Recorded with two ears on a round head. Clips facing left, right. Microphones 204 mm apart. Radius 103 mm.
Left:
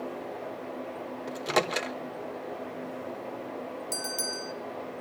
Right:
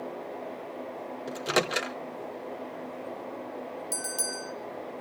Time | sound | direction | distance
1.3 | a microwave | 10° right (ahead or behind) | 0.9 m
3.9 | a bell | 5° right (ahead or behind) | 0.8 m